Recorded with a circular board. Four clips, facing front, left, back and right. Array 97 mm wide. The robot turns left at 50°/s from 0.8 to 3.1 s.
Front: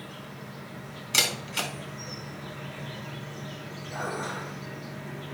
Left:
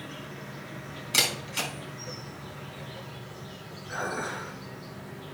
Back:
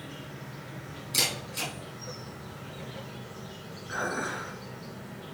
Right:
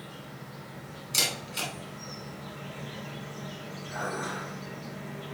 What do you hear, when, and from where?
0.0 s an insect: 90° left, 3 m; by 5.3 s 25° right, 3 m
1.1 s a camera shutter: 45° left, 3 m; by 1.7 s 20° left, 3 m
3.9 s dishes clattering: 145° left, 4.5 m